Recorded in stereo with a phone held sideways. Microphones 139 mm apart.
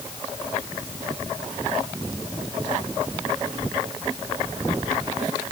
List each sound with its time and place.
Only background noise.